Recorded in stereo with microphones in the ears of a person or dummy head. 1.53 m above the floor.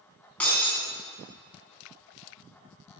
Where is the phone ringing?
I don't hear a phone ringing.